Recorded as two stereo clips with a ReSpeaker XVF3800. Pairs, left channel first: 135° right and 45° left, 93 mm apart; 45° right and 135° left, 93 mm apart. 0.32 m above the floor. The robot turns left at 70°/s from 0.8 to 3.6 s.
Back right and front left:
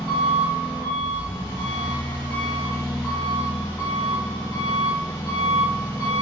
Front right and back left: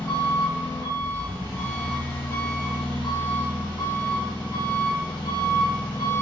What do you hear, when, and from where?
0.0 s an engine running: 115° left, 1.6 m; by 6.2 s 85° right, 1.6 m